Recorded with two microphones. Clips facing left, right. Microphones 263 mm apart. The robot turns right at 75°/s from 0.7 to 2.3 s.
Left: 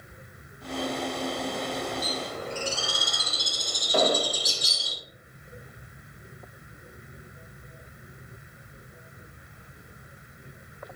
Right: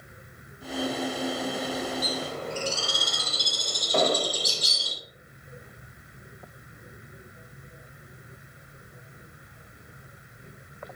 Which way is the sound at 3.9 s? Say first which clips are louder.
Even; centre (ahead or behind).